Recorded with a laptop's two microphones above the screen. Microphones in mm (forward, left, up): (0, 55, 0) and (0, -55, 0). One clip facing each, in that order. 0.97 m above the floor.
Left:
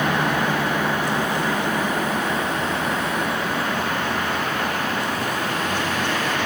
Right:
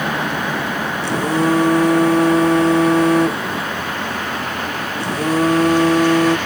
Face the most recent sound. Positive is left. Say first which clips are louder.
# right 5 dB
turn(degrees=-75)  # may be behind; listen again after turning